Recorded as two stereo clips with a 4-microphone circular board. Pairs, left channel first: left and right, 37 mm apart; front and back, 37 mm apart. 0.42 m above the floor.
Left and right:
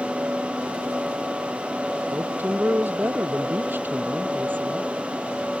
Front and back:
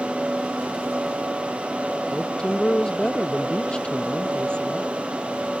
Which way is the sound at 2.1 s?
70° right.